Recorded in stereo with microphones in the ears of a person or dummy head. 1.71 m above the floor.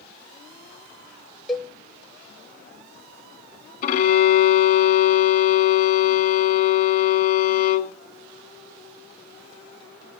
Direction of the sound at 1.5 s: 10° left (ahead or behind).